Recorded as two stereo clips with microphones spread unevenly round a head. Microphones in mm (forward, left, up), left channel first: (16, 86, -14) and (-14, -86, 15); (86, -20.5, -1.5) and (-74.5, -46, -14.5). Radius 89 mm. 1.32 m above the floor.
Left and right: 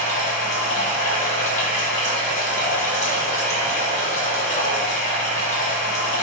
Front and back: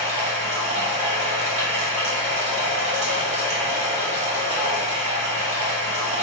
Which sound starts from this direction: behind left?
Running water, at 0.0 s.